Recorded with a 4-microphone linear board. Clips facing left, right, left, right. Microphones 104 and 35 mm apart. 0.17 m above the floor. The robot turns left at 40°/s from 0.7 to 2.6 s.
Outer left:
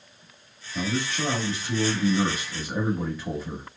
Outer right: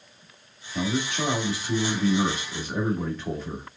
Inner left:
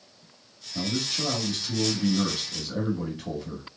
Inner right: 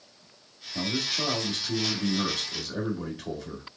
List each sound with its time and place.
0.8 s a man speaking: 20° right (ahead or behind), 1.1 m; by 3.7 s 5° left (ahead or behind), 1.1 m